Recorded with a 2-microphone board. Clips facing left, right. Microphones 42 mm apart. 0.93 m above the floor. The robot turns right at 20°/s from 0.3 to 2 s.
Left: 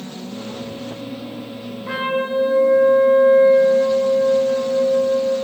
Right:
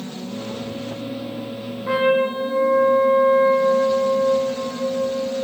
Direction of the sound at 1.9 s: 10° right (ahead or behind).